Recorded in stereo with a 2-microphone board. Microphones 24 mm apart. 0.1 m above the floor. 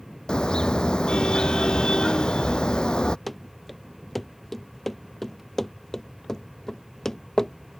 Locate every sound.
0.3 s a car horn: 30° left (ahead or behind)
3.3 s running footsteps: 10° left (ahead or behind); by 7.8 s 25° left (ahead or behind)